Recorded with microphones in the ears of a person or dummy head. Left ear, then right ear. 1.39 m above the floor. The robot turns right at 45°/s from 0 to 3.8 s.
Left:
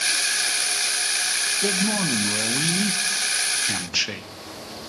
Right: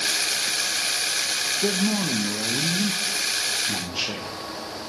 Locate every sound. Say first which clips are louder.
1.6 s a man speaking: left 1 dB; 10° left, 0.7 m; by 4.3 s 110° left, 0.7 m